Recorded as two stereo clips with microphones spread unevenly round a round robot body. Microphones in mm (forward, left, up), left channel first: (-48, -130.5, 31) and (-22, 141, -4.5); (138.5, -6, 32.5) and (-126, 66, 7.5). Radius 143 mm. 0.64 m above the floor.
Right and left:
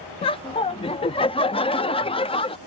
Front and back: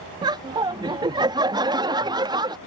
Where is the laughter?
160° right.